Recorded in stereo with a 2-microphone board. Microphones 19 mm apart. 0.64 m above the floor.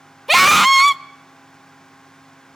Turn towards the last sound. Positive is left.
turn(degrees=0)  # may be behind; listen again after turning